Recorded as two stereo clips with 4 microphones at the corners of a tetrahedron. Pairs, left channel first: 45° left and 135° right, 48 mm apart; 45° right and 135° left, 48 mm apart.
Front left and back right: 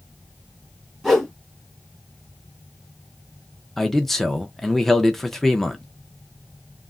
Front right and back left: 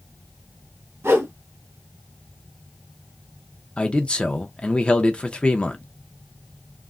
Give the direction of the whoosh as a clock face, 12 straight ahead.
8 o'clock.